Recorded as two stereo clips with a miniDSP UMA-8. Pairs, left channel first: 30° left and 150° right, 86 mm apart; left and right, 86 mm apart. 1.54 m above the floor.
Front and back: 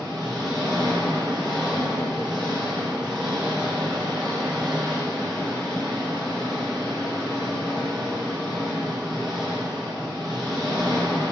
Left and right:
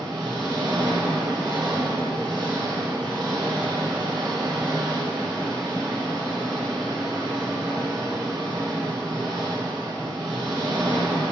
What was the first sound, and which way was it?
An engine running, 70° right.